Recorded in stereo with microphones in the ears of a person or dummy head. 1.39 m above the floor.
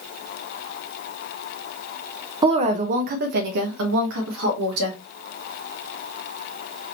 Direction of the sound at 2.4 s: 25° right (ahead or behind).